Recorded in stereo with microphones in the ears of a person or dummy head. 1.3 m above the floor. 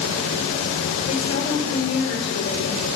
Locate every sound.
0.0 s a fan: 75° left (ahead or behind), 4.5 m
1.1 s a woman speaking: 55° left (ahead or behind), 4.5 m